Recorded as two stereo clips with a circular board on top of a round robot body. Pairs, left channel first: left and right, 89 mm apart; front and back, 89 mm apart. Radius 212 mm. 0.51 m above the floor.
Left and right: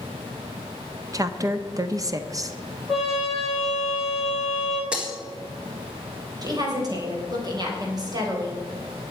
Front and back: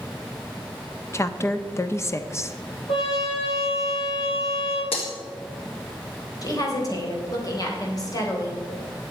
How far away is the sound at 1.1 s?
About 1.1 m.